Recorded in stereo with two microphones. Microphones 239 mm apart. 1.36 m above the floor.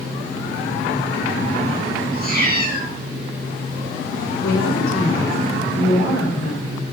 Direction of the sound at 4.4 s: 60° left (ahead or behind).